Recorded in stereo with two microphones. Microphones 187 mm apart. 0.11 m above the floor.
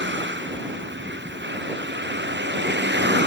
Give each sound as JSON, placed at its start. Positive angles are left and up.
{"t": 0.0, "sound": "a vehicle", "side_deg": -75}